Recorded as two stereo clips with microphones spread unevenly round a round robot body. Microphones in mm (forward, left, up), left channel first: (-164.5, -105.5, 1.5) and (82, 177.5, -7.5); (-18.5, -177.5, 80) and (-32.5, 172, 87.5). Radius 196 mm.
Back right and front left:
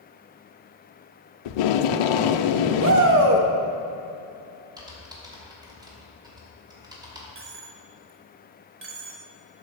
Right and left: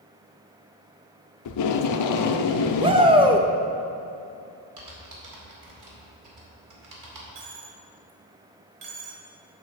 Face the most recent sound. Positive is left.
turn(degrees=105)